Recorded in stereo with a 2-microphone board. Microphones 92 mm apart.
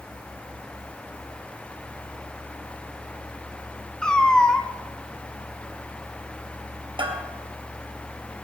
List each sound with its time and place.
4.0 s a cat meowing: 10° left (ahead or behind), 1.0 m
7.0 s a bell: 65° right (ahead or behind), 2.5 m